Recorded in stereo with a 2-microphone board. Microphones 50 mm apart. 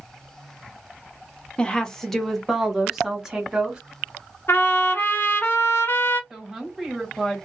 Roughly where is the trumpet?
Left.